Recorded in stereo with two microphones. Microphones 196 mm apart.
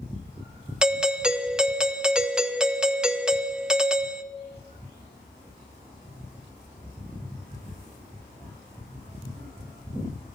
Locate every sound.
0.8 s a doorbell: 5° right (ahead or behind), 0.6 m